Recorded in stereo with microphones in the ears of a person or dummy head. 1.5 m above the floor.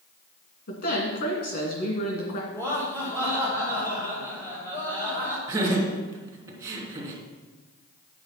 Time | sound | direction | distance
0.7 | a woman speaking | 60° left (ahead or behind) | 2.5 m
2.5 | laughter | 10° left (ahead or behind) | 5.5 m
5.5 | laughter | 20° right (ahead or behind) | 3 m